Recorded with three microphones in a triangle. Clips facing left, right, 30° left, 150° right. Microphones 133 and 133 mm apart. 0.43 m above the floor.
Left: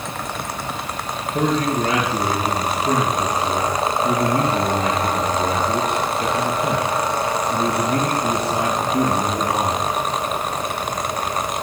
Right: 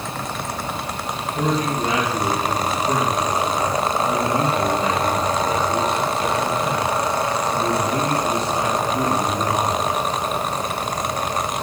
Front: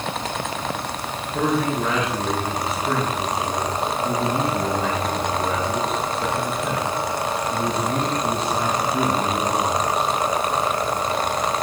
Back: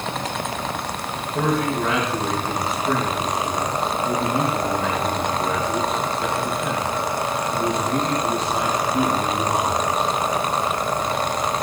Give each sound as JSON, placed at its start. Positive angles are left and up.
{"t": 1.3, "sound": "a man speaking", "azimuth_deg": 120, "distance_m": 7.0}